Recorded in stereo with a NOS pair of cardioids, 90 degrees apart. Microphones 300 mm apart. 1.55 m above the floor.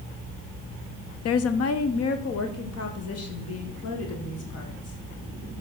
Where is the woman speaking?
55° left, 0.6 m.